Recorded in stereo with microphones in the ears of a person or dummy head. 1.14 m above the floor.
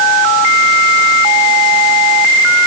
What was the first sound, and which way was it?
Only background noise.